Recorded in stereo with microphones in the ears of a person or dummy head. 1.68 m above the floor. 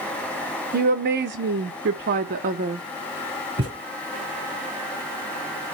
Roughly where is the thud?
Right.